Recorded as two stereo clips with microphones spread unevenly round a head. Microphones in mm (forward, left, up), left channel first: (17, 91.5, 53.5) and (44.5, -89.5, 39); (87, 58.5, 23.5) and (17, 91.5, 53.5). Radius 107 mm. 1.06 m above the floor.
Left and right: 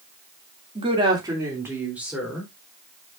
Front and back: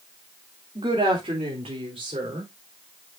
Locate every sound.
0.8 s a woman speaking: 145° right, 2.5 m; by 2.5 s 170° right, 4 m